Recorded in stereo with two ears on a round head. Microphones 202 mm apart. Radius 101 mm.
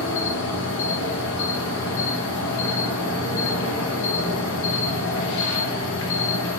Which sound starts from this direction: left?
An insect, at 0.0 s.